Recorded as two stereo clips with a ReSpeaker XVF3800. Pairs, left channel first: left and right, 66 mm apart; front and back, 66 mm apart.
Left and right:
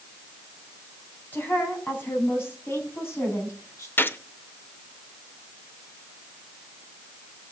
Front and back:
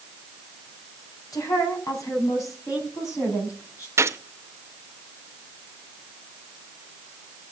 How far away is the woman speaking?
About 4 m.